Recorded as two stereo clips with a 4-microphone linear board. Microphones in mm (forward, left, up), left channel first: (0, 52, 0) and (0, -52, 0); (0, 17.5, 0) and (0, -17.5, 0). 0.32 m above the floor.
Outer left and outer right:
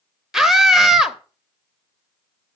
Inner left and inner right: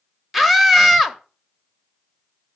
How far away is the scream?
About 0.9 m.